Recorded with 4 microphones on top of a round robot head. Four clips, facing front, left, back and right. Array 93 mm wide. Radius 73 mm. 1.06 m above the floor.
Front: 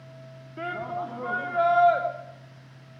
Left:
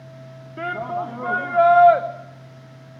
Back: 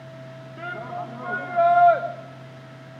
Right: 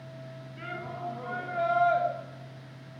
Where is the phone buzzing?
No phone buzzing in this recording.